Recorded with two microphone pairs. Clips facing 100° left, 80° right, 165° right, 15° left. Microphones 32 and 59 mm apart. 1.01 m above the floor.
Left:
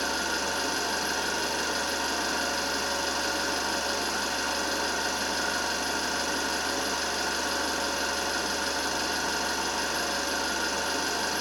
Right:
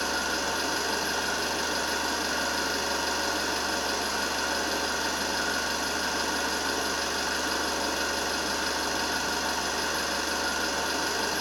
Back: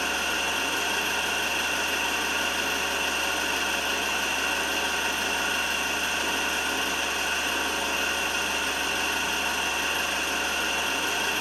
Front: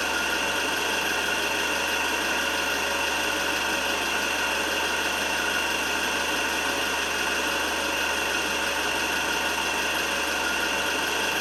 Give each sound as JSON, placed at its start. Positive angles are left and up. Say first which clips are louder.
{"t": 0.0, "sound": "an engine running", "louder": "even, front 2 dB", "azimuth_deg": 0, "distance_m": 1.4}